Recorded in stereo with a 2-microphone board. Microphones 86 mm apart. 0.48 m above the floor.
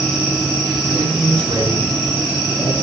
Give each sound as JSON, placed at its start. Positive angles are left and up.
{"t": 0.9, "sound": "a man speaking", "side_deg": -85, "distance_m": 5.5}